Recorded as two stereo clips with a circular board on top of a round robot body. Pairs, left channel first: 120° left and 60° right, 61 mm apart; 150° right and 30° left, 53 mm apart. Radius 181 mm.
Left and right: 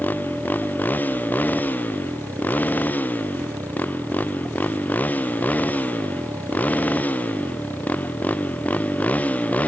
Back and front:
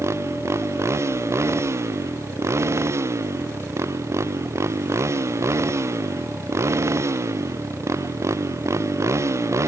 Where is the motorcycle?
60° left; by 9.7 s 55° left.